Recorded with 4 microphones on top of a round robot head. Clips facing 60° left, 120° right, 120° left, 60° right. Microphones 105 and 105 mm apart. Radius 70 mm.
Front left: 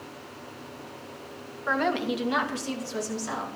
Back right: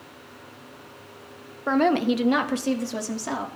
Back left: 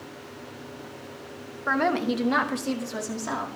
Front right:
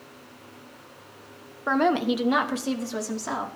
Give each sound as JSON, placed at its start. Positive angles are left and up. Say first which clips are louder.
{"t": 1.7, "sound": "a woman speaking", "louder": "back right 6 dB, front right 2 dB", "azimuth_deg": -125, "distance_m": 0.8}